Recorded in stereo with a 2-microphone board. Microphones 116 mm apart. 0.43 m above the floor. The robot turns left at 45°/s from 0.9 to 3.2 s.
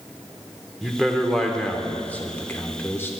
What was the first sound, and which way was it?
A man speaking, 5° right (ahead or behind).